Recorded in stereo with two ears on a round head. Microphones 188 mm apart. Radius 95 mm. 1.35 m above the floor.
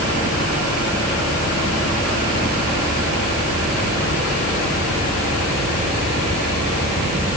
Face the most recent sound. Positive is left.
No sound to turn to.